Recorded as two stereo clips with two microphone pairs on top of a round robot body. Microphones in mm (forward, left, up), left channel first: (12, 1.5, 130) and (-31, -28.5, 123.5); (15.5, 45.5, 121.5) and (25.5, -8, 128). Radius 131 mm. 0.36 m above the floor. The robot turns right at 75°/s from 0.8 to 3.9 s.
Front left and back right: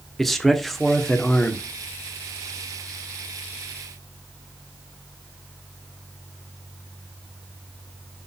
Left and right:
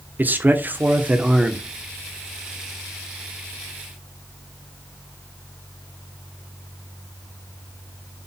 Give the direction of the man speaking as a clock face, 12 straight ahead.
2 o'clock.